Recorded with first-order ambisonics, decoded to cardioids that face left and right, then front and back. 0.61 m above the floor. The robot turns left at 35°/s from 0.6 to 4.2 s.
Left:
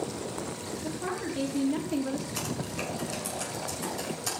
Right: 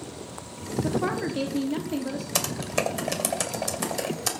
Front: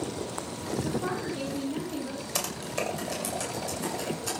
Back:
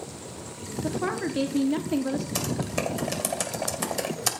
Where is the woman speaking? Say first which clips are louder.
Right 7 dB, back 6 dB; 135° right, 1.4 m; by 2.2 s straight behind, 1.4 m.